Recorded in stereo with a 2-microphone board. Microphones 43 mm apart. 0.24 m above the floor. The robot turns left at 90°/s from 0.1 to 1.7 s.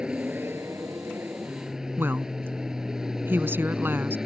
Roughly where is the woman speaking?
Right.